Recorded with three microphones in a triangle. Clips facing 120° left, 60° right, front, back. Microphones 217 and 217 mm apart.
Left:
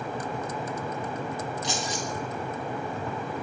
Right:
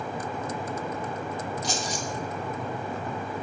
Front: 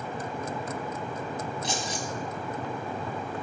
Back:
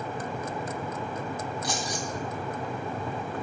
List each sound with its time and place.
1.6 s keys jangling: 50° right, 1.2 m